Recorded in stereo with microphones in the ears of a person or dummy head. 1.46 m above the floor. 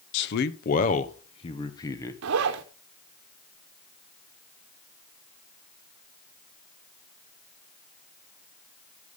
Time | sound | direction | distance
0.1 | a man speaking | 65° left (ahead or behind) | 0.9 m
2.2 | a zipper | 75° right (ahead or behind) | 0.9 m